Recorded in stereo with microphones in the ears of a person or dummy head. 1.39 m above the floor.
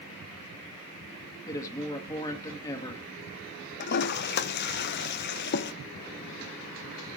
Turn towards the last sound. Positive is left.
turn(degrees=55)  # may be behind; listen again after turning